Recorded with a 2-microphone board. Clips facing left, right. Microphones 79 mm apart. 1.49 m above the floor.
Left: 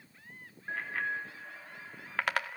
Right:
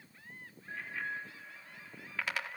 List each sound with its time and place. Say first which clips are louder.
0.7 s a bicycle bell: left 5 dB; 65° left (ahead or behind), 3 m; by 2.5 s 55° left (ahead or behind), 2 m